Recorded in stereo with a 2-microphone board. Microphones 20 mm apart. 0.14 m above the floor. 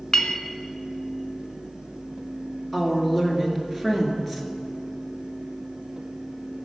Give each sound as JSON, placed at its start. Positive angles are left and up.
{"t": 0.1, "sound": "a clink", "side_deg": 25, "distance_m": 0.6}
{"t": 2.7, "sound": "a woman speaking", "side_deg": 10, "distance_m": 1.7}